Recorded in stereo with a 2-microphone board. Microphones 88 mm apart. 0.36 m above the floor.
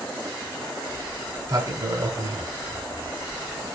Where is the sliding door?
40° right (ahead or behind), 0.7 m.